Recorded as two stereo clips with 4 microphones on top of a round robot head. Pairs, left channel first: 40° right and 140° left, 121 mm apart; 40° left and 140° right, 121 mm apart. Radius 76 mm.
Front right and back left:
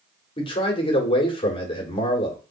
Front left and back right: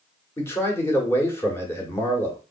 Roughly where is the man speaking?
Ahead.